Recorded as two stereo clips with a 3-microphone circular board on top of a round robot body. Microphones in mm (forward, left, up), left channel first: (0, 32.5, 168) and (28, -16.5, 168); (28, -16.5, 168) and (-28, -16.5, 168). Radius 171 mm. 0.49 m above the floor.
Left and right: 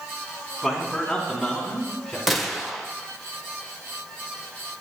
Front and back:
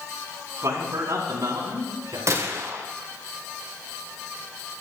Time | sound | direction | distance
0.6 | a man speaking | 145° right | 6 m
2.3 | a gunshot | 145° right | 2.5 m